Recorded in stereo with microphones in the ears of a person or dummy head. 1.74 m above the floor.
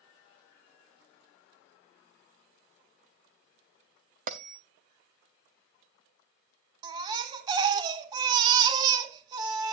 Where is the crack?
No crack in this recording.